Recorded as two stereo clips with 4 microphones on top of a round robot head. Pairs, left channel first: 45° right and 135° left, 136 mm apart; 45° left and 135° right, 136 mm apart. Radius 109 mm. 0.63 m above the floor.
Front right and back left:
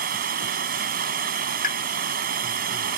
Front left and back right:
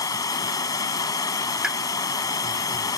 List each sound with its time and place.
0.0 s running water: 115° left
1.6 s a pop: 50° right